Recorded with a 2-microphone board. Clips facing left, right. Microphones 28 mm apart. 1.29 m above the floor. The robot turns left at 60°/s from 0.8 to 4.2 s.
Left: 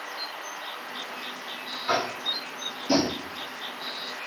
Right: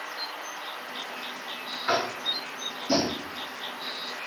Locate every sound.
1.9 s tapping: 45° right (ahead or behind), 1.1 m; by 3.2 s 25° left (ahead or behind), 1.1 m